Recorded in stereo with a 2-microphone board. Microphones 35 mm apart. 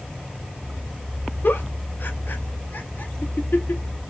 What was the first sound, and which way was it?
A giggle, 70° left (ahead or behind).